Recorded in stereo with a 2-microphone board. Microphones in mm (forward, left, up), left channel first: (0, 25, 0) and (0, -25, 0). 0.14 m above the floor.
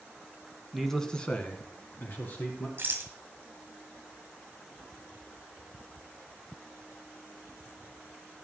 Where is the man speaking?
Centre (ahead or behind), 1.3 m; by 2.7 s 45° left (ahead or behind), 2.5 m.